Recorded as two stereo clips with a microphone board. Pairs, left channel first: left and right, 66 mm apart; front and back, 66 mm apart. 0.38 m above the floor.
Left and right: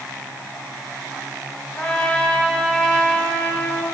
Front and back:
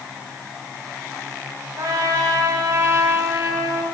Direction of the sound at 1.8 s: 165° left.